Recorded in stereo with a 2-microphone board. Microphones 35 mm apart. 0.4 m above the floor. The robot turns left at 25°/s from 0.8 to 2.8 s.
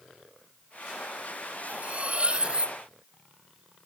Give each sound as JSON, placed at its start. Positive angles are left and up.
{"t": 1.7, "sound": "cutlery clinking", "side_deg": -50, "distance_m": 0.8}